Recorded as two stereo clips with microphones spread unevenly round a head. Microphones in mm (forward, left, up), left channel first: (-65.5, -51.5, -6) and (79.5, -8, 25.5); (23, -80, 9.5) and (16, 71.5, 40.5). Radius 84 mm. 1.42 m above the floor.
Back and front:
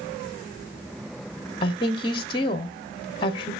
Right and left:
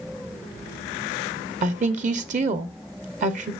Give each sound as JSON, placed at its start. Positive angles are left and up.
{"t": 1.6, "sound": "a woman speaking", "azimuth_deg": 140, "distance_m": 0.9}